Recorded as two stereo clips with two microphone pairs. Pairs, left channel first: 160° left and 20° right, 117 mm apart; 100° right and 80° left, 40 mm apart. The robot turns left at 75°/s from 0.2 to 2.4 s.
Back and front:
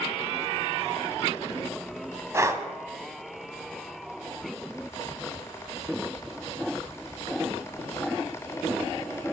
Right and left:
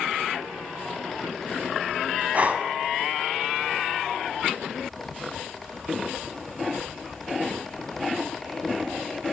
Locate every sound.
2.3 s breathing: 40° left, 0.5 m; by 2.7 s 35° left, 0.5 m